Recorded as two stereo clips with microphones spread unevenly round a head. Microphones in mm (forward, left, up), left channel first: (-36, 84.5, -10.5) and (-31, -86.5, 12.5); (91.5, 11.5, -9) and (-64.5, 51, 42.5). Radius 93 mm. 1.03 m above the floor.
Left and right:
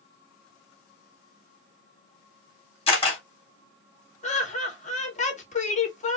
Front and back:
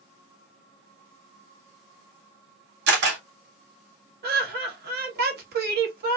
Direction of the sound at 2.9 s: 145° left.